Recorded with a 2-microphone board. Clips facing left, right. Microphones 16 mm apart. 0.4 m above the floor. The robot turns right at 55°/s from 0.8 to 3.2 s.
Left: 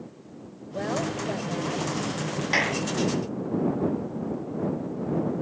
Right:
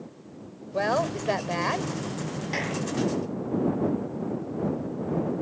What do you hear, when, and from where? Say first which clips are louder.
0.7 s a woman speaking: right 3 dB; 125° right; by 1.9 s 60° right
2.5 s a clap: left 6 dB; 30° left (ahead or behind); by 2.8 s 10° left (ahead or behind)